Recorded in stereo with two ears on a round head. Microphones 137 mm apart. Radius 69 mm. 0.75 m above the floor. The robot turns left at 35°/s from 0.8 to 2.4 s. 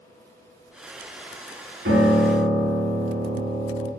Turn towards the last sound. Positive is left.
turn(degrees=-85)